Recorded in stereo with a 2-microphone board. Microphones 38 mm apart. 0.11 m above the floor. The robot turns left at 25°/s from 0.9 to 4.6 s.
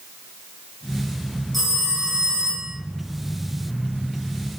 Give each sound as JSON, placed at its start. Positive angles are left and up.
{"t": 1.5, "sound": "a phone ringing", "azimuth_deg": 0, "distance_m": 3.0}